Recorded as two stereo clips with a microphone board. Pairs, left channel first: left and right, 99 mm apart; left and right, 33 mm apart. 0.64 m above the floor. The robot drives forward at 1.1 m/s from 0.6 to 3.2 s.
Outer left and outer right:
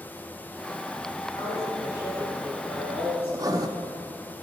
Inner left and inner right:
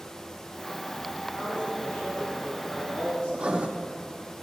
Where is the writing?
35° right (ahead or behind), 0.9 m.